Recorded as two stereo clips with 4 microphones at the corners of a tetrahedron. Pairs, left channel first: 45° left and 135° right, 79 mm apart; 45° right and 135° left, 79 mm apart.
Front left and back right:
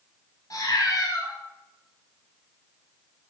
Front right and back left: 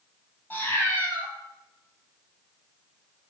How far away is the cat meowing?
About 1.2 m.